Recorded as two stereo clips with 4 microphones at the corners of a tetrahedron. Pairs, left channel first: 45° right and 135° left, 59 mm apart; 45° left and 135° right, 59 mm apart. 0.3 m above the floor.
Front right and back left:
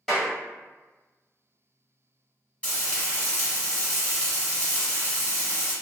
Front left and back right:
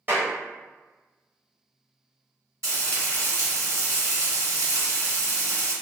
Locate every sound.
0.1 s a clap: 125° right, 1.3 m
2.6 s frying: 110° right, 1.4 m